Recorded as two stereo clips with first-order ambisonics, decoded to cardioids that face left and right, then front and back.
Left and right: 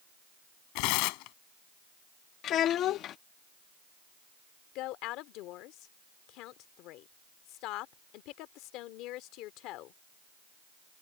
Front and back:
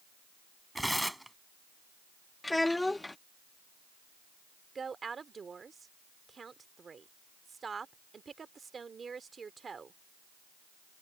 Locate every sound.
0.8 s tearing paper: 90° left
2.4 s a child speaking: 80° left
4.8 s a woman speaking: 110° left